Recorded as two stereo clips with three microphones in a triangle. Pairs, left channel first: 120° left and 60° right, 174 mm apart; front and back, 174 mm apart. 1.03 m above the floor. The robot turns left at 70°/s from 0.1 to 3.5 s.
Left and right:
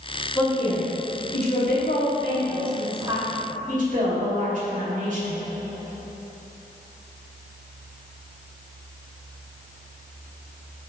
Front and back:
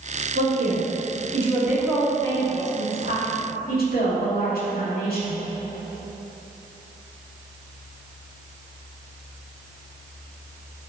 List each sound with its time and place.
0.3 s a woman speaking: 160° right, 2.5 m; by 5.3 s 20° right, 2.5 m